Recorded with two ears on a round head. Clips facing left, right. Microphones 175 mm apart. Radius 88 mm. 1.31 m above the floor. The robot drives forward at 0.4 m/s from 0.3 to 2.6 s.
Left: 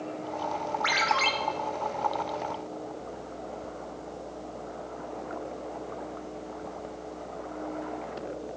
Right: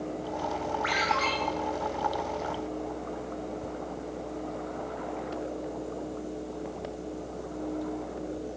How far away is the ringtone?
About 1.6 m.